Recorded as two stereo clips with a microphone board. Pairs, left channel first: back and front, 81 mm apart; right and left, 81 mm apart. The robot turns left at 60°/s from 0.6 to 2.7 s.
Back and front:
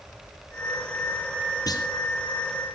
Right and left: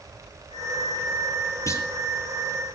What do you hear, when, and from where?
1.7 s a clunk: 140° right, 1.4 m; by 1.9 s 155° right, 1.4 m